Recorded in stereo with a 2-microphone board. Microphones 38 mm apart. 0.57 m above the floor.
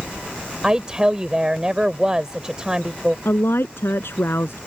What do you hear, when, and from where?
0.6 s a woman speaking: 20° right (ahead or behind)
3.2 s a woman speaking: 80° left